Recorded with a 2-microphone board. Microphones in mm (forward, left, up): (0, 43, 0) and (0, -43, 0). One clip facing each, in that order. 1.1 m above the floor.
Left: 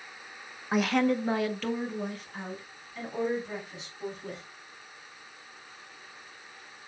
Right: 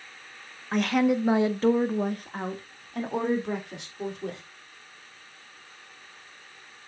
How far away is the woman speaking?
About 0.9 m.